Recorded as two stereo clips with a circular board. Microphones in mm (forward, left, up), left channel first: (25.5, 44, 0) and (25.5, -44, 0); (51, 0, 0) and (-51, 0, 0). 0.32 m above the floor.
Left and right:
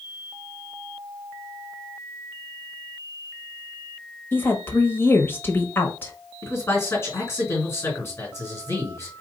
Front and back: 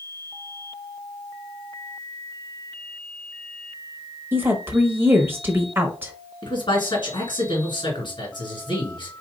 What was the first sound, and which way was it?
A woman speaking, 130° left.